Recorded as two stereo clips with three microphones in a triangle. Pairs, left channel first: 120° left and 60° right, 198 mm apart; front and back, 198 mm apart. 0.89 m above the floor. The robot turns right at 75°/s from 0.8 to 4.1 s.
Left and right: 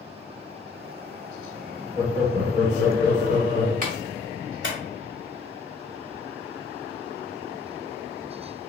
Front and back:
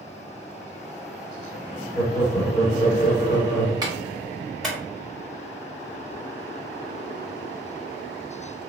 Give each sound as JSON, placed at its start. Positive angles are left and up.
{"t": 1.9, "sound": "laughter", "azimuth_deg": -130, "distance_m": 1.8}
{"t": 3.8, "sound": "a clap", "azimuth_deg": -110, "distance_m": 1.2}